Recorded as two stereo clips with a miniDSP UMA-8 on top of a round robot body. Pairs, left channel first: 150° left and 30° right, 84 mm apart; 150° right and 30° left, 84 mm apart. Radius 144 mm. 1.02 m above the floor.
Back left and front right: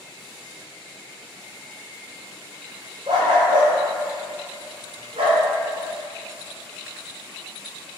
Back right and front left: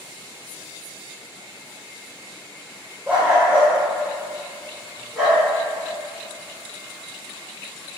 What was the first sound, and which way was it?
A dog barking, 40° right.